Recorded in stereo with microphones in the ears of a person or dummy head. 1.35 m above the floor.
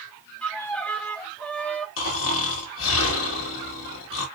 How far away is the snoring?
About 1.7 m.